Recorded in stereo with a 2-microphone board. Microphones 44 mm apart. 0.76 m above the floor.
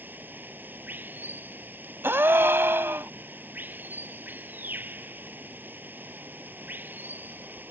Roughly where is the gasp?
Right.